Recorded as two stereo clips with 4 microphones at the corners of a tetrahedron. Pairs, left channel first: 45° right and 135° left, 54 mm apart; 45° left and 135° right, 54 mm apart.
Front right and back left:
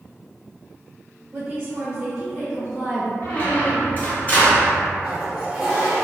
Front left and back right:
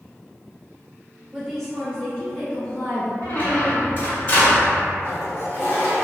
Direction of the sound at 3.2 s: 5° left.